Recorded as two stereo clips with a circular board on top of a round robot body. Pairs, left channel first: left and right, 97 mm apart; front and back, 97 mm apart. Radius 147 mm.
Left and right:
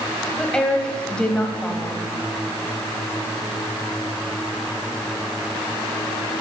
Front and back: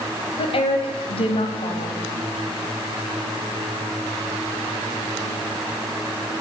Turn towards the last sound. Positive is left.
turn(degrees=10)